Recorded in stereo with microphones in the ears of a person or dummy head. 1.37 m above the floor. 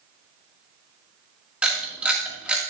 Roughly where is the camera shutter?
Centre.